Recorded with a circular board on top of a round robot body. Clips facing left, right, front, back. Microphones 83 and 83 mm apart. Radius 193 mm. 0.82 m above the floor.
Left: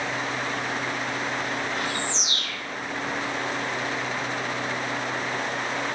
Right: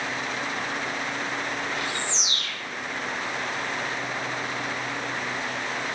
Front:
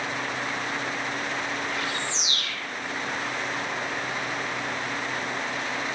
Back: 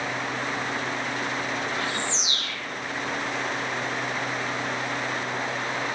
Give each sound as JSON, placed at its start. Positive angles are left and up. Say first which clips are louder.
{"t": 1.7, "sound": "a bird", "louder": "left 1 dB, back 1 dB", "azimuth_deg": 125, "distance_m": 1.6}